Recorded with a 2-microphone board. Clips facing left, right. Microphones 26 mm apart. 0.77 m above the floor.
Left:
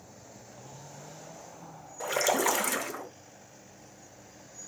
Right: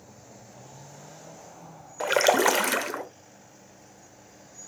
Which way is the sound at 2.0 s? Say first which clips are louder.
Right 6 dB; 50° right (ahead or behind).